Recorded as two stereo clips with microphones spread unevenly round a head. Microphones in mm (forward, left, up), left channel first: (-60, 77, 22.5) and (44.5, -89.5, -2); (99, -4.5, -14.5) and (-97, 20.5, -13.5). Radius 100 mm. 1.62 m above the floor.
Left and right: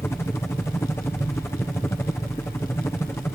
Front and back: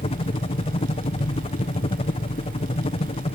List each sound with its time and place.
0.0 s a helicopter: 40° left